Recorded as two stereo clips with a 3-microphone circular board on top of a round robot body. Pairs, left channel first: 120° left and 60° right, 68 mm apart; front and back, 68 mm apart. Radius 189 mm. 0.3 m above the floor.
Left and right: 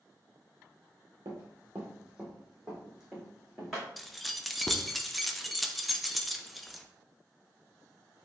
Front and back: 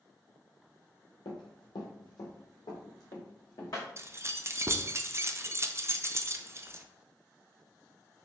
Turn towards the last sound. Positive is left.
turn(degrees=-150)